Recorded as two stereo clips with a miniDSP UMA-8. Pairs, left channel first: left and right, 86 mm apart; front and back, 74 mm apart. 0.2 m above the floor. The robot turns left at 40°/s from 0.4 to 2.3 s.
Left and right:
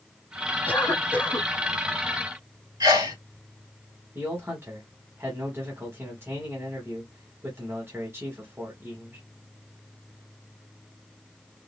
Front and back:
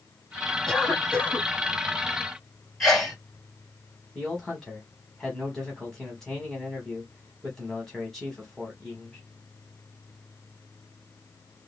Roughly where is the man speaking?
Right.